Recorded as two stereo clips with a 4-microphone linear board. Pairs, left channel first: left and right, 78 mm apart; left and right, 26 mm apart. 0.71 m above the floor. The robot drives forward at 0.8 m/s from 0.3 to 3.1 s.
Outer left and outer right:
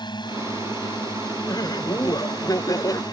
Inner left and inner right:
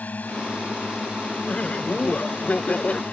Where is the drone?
80° left; by 3.1 s 65° left (ahead or behind).